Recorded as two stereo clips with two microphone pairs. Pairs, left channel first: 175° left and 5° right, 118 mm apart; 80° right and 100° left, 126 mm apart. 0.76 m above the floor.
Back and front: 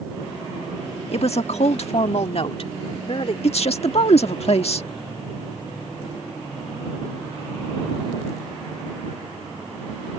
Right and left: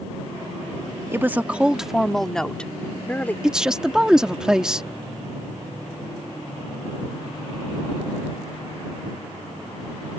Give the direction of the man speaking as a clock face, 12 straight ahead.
6 o'clock.